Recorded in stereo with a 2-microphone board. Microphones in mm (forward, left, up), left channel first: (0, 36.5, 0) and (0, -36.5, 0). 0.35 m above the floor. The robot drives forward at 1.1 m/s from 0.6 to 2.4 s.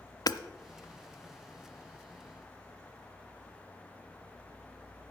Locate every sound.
0.3 s hammering: 60° left (ahead or behind), 0.6 m